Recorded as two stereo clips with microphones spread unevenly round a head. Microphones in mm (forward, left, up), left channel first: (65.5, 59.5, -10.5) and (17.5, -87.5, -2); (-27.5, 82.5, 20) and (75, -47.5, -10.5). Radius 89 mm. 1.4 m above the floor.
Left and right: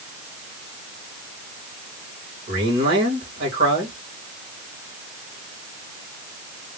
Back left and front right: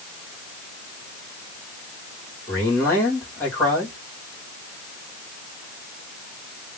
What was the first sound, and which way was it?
A man speaking, 150° right.